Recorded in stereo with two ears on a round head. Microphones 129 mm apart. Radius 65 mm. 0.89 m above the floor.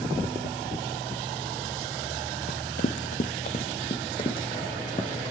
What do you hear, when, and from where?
2.5 s running footsteps: 55° left (ahead or behind), 1.5 m; by 5.3 s 30° left (ahead or behind), 4 m